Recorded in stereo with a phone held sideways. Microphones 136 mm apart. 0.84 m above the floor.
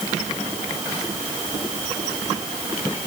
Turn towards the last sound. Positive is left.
No sound to turn to.